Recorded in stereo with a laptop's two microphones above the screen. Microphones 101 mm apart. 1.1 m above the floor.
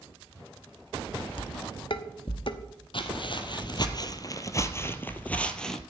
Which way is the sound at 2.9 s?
55° left (ahead or behind).